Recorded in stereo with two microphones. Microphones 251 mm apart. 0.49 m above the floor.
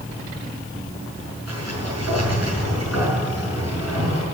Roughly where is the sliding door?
Right.